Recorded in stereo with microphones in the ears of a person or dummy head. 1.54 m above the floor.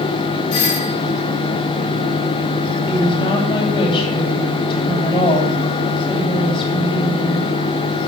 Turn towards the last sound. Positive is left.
turn(degrees=30)  # may be behind; listen again after turning